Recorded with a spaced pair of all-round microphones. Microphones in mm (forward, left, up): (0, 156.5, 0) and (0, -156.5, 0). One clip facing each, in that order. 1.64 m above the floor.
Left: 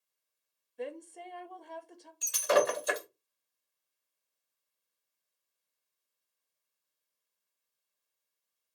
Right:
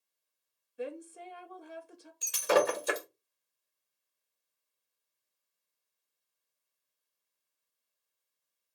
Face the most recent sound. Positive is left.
turn(degrees=-35)  # may be behind; listen again after turning